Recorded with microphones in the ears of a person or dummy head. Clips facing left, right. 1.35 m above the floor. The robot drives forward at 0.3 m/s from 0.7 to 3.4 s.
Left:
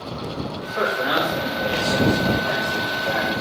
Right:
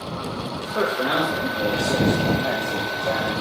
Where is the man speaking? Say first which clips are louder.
Right 1 dB; 60° right (ahead or behind), 2.5 m; by 3.3 s 50° right (ahead or behind), 3 m.